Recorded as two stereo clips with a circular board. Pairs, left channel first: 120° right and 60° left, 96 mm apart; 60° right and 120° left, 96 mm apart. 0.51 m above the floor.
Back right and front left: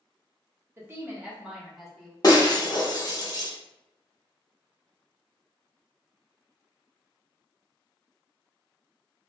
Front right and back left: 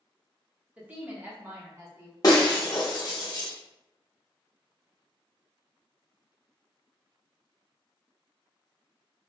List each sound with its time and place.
0.8 s a woman speaking: 65° left, 0.7 m; by 2.1 s 155° left, 0.9 m
2.2 s breaking glass: 90° right, 0.7 m